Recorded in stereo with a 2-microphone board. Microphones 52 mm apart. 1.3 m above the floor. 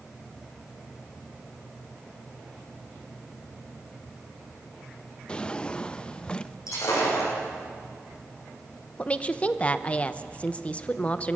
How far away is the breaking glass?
About 10 m.